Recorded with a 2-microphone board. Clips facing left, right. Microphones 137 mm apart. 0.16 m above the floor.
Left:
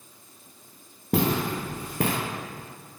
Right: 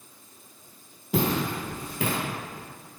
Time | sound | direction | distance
1.1 | footsteps | 55° left (ahead or behind) | 1.7 m